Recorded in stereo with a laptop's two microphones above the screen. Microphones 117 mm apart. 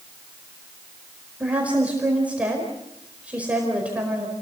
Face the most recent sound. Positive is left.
turn(degrees=-10)  # may be behind; listen again after turning